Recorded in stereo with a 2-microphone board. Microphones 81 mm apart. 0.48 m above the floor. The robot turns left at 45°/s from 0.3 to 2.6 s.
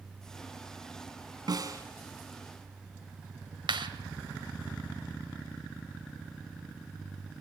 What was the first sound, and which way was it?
A snare drum, 50° right (ahead or behind).